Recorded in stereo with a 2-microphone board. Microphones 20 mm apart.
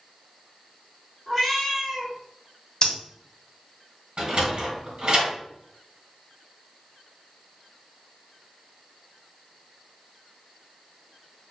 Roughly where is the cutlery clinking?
I don't hear cutlery clinking.